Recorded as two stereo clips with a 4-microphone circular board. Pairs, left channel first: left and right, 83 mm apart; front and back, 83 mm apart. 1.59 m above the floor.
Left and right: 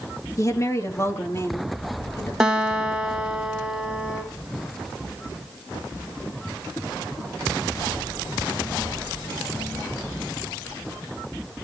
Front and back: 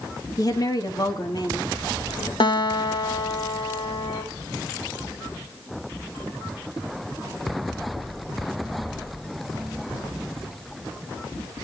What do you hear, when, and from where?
0.4 s a woman speaking: 40° left, 2.5 m; by 2.3 s 30° left, 4 m
2.4 s a guitar: 10° right, 2.5 m